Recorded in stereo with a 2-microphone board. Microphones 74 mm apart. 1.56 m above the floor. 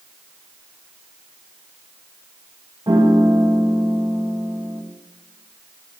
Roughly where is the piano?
Right.